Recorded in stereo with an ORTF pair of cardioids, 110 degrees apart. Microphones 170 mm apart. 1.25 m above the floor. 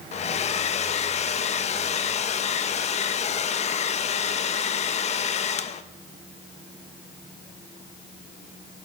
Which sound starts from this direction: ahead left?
A hair dryer, at 0.1 s.